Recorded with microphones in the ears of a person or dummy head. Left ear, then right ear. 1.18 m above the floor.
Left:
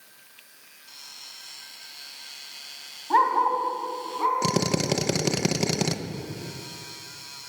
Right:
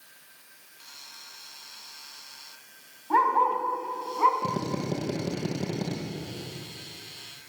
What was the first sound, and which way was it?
A dog barking, 5° left (ahead or behind).